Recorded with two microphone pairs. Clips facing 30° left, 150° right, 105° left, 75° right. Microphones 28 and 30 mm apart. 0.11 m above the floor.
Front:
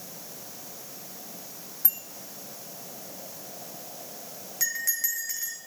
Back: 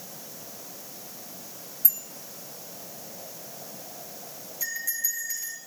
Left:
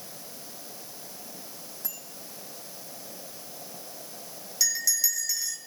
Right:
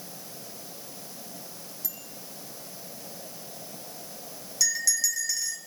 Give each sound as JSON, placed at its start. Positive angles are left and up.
{"t": 1.8, "sound": "a bicycle bell", "azimuth_deg": 55, "distance_m": 5.5}
{"t": 4.6, "sound": "a bell", "azimuth_deg": 15, "distance_m": 4.5}